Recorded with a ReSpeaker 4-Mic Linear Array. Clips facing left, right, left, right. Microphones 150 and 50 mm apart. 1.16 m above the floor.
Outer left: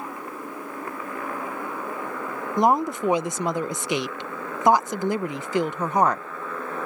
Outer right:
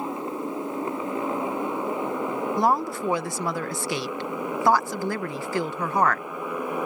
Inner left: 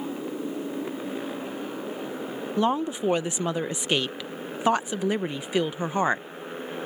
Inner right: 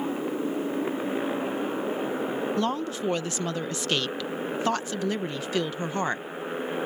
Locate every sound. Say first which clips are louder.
0.0 s a motorcycle: outer right 5 dB, inner right 3 dB; 20° right (ahead or behind); by 6.9 s 15° right (ahead or behind)
2.6 s a woman speaking: outer left 4 dB, inner left 3 dB; 20° left (ahead or behind)